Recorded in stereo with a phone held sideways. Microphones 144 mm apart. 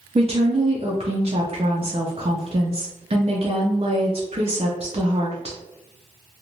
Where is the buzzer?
I don't hear a buzzer.